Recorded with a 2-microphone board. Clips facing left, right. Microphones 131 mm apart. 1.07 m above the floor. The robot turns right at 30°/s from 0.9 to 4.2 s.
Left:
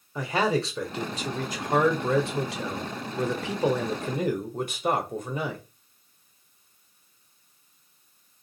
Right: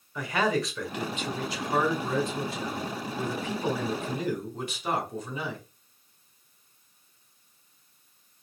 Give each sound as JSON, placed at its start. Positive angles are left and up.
{"t": 0.1, "sound": "a man speaking", "azimuth_deg": 30, "distance_m": 0.9}